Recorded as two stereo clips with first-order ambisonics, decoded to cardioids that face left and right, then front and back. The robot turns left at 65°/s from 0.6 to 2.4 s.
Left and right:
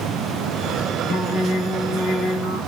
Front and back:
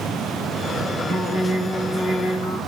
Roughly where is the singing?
Behind left.